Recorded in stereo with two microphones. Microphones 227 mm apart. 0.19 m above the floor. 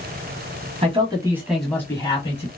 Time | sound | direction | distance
0.8 | a man speaking | 25° right (ahead or behind) | 1.1 m